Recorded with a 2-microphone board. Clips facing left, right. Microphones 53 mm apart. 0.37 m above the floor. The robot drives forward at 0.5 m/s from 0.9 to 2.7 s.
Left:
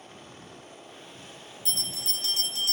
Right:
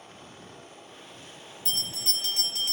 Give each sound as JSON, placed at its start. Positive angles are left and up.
{"t": 1.6, "sound": "a bell", "side_deg": -45, "distance_m": 3.0}